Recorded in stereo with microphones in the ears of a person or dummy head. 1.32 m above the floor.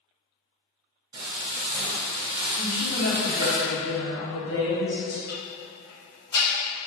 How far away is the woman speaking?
About 1.5 m.